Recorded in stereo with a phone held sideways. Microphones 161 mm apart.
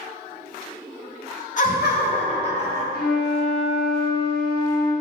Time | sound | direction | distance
1.6 | laughter | 50° left (ahead or behind) | 0.7 m
2.9 | a flute | 70° left (ahead or behind) | 0.6 m